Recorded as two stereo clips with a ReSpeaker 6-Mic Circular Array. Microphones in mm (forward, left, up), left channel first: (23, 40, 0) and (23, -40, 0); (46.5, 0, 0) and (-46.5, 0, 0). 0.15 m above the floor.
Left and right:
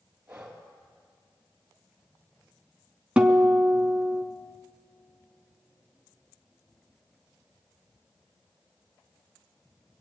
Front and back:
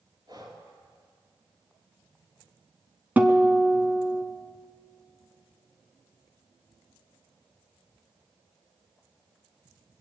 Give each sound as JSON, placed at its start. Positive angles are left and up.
{"t": 0.3, "sound": "breathing", "azimuth_deg": -170, "distance_m": 3.0}
{"t": 3.2, "sound": "a guitar", "azimuth_deg": -145, "distance_m": 0.9}